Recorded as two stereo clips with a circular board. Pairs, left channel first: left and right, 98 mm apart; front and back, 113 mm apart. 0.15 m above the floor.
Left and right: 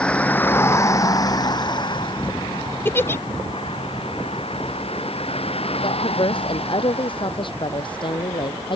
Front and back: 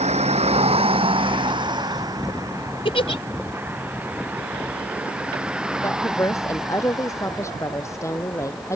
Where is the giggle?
25° left.